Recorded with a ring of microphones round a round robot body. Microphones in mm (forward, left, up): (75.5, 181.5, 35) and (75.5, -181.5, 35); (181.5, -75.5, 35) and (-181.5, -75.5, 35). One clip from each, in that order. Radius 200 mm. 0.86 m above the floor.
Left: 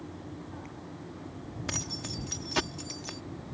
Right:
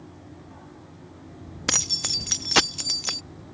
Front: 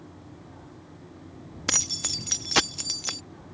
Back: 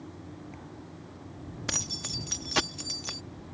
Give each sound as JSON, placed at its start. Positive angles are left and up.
{"t": 1.7, "sound": "keys jangling", "azimuth_deg": -60}